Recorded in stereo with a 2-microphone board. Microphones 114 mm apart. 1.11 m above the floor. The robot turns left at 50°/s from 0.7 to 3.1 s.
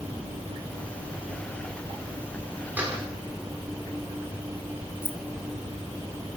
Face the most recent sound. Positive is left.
turn(degrees=20)  # may be behind; listen again after turning